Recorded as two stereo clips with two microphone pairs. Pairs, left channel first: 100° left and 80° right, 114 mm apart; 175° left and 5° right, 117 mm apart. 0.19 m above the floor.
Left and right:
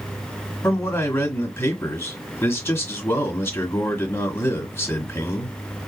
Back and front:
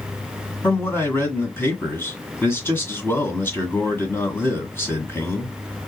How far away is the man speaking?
About 1.5 m.